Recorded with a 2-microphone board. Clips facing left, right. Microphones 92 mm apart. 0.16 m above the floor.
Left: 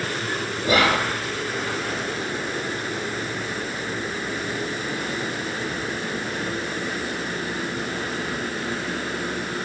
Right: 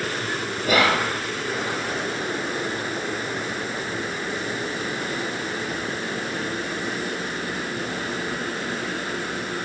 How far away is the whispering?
About 1.3 m.